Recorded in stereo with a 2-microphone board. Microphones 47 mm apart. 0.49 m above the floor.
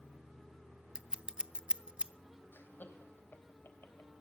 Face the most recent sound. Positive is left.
turn(degrees=50)  # may be behind; listen again after turning